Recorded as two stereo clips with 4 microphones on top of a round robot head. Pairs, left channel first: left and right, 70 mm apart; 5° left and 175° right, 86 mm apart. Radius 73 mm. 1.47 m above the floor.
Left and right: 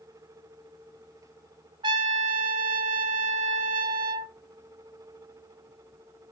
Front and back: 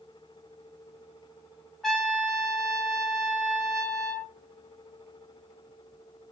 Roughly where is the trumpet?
Right.